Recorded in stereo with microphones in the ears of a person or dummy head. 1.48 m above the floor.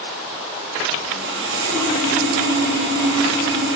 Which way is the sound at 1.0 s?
70° right (ahead or behind).